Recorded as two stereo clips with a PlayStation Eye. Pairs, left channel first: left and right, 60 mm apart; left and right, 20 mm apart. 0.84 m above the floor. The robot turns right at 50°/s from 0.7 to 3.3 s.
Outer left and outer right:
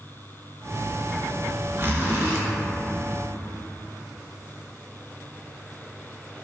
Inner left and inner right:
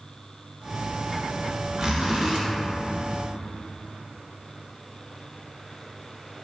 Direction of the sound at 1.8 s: 120° right.